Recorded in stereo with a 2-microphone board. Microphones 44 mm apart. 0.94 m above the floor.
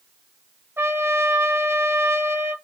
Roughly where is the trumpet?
Right.